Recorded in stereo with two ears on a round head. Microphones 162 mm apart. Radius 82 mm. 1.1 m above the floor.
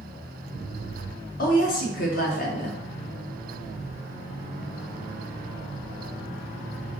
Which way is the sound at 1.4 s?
50° left (ahead or behind).